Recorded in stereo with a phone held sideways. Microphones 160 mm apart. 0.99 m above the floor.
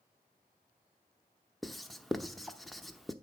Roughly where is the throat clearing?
No throat clearing in this recording.